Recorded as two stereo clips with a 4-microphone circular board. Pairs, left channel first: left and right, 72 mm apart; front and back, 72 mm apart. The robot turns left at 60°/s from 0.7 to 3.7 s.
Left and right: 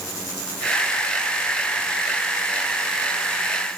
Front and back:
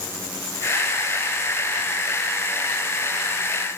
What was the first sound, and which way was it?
Only background noise.